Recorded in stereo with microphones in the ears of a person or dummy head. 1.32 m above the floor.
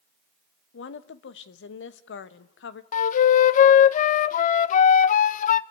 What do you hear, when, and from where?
0.7 s a woman speaking: 85° left, 1.4 m
2.9 s a flute: 50° left (ahead or behind), 0.7 m